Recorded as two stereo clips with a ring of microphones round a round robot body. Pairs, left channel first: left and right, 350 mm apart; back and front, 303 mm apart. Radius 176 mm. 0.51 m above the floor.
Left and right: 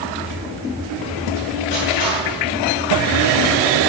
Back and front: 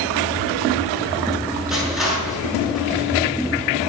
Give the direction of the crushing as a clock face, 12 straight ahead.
9 o'clock.